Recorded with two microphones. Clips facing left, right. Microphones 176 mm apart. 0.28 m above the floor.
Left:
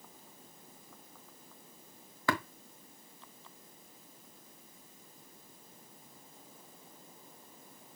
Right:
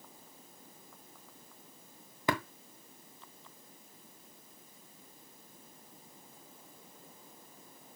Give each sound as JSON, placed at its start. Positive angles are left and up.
{"t": 2.3, "sound": "tapping", "side_deg": -20, "distance_m": 1.3}